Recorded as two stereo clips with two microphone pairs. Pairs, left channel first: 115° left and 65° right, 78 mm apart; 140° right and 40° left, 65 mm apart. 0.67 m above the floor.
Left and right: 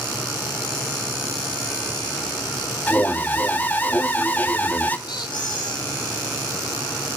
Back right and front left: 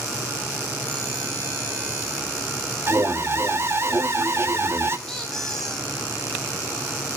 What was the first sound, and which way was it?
An alarm, 60° left.